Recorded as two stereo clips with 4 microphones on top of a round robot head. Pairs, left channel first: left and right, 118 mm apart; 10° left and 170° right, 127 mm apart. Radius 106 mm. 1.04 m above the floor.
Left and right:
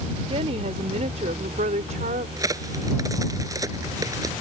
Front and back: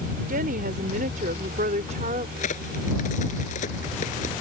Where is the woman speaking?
145° right; by 2.3 s 125° right.